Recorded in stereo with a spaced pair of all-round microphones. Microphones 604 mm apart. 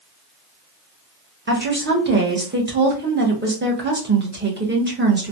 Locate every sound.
1.5 s a woman speaking: 20° right (ahead or behind), 0.9 m